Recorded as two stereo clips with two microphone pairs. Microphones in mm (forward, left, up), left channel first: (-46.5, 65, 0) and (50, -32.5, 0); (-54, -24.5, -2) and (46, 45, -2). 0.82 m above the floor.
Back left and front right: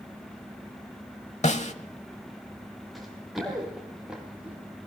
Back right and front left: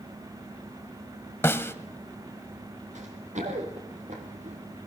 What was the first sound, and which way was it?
A snare drum, 150° left.